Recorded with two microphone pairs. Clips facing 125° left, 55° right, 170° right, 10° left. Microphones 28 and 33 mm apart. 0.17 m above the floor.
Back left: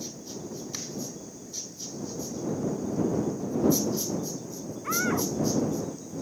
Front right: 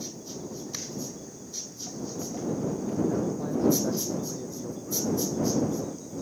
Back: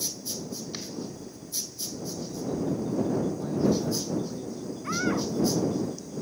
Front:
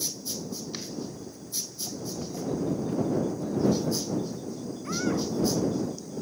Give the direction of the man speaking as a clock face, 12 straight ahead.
3 o'clock.